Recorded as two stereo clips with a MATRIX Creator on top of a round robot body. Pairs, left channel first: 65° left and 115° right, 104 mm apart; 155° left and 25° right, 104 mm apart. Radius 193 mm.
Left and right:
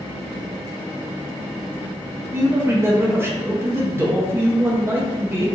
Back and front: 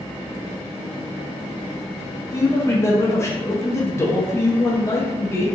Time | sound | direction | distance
2.3 | a man speaking | 160° right | 0.8 m